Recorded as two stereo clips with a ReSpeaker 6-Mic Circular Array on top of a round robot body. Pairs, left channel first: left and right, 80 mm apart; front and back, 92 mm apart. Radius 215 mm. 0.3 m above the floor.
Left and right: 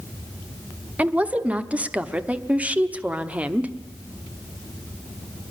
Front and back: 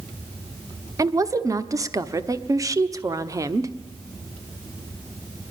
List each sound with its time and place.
1.0 s a woman speaking: 155° right, 1.3 m